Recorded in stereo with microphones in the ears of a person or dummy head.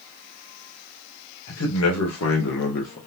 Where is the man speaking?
70° left (ahead or behind), 1.1 m; by 3.0 s 45° left (ahead or behind), 0.6 m.